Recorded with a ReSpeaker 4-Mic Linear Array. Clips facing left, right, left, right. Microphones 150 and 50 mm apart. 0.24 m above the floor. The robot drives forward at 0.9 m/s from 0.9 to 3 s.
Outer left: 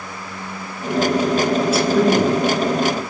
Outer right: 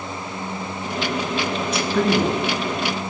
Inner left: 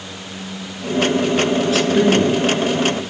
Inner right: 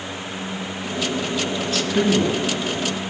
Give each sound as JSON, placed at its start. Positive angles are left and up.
{"t": 1.6, "sound": "a man speaking", "side_deg": 5, "distance_m": 3.5}